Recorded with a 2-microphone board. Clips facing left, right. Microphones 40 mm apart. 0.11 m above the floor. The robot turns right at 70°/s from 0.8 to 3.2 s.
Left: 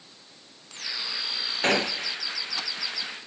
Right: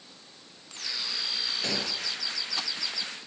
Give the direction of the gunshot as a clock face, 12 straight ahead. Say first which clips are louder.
Left 12 dB; 9 o'clock.